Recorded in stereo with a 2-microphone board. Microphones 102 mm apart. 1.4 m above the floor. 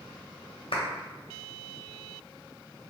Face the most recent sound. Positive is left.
turn(degrees=70)  # may be behind; listen again after turning